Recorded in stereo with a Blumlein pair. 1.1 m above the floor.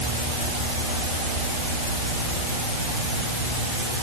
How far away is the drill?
I don't hear a drill.